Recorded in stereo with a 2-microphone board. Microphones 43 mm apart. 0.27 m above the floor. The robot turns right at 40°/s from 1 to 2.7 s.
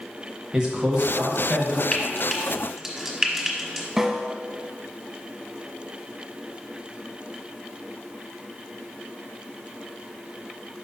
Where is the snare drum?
15° right (ahead or behind), 0.7 m.